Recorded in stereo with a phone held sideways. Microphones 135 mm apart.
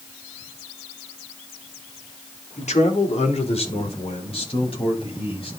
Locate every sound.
2.6 s a man speaking: 60° left (ahead or behind), 3.5 m; by 5.5 s 40° left (ahead or behind), 7.5 m